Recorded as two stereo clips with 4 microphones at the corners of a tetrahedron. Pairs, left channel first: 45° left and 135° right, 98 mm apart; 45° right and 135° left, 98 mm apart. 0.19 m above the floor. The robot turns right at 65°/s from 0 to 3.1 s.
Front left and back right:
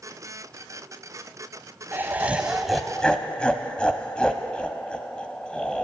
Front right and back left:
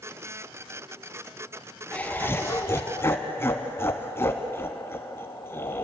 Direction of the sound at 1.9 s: 100° right.